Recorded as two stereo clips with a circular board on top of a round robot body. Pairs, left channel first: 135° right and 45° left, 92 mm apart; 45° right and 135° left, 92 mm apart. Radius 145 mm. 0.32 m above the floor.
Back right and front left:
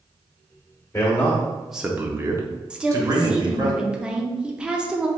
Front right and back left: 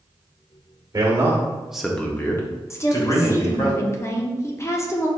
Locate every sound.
0.9 s a man speaking: 170° left, 1.1 m; by 3.7 s 5° right, 2 m
2.7 s a woman speaking: 30° right, 0.9 m